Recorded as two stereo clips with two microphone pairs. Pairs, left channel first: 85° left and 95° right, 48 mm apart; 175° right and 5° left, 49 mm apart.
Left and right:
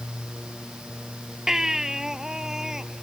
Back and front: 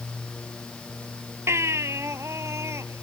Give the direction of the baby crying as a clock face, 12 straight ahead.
1 o'clock.